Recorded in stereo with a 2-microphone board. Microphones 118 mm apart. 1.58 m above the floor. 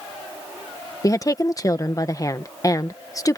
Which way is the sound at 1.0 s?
30° left (ahead or behind).